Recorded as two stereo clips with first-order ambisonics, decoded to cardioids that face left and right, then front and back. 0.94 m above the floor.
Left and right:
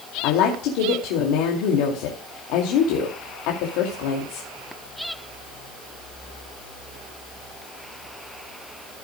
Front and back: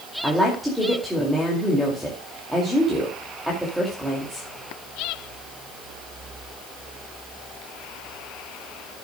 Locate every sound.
0.2 s a woman speaking: 90° left, 2.5 m